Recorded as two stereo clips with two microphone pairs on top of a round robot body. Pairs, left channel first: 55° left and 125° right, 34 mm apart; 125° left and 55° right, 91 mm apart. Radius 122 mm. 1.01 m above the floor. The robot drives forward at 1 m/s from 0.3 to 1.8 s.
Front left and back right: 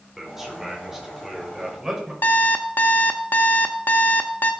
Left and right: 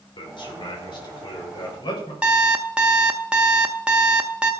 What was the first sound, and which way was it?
A man speaking, 155° left.